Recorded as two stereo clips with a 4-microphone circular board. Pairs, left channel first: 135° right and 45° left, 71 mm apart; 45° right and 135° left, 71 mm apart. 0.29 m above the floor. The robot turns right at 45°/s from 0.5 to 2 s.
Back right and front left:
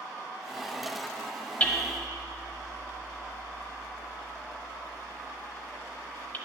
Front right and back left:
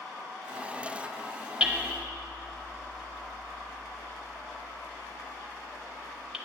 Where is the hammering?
Straight behind, 0.9 m; by 6.4 s 160° right, 0.9 m.